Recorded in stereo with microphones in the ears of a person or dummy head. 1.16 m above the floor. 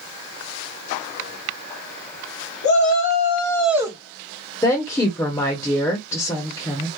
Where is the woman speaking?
25° left (ahead or behind), 0.7 m.